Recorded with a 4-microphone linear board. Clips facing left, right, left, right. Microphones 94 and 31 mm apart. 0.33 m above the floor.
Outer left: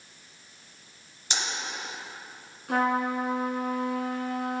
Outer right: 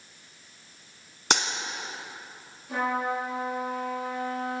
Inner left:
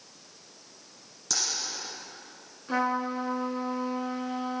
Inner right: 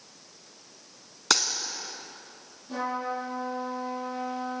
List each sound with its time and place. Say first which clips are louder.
1.3 s a dropped coin: outer right 8 dB, inner right 8 dB; 80° right, 1.1 m
2.7 s a trumpet: outer left 3 dB, inner left 3 dB; 70° left (ahead or behind), 3.5 m